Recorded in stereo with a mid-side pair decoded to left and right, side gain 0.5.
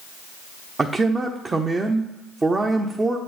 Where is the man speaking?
25° right, 0.9 m.